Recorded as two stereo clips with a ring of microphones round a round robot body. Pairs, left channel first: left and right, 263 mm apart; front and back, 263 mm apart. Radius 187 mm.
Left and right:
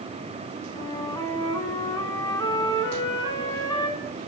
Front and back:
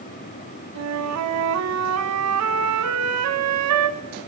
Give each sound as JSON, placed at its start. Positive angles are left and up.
{"t": 0.8, "sound": "a flute", "azimuth_deg": 170, "distance_m": 1.3}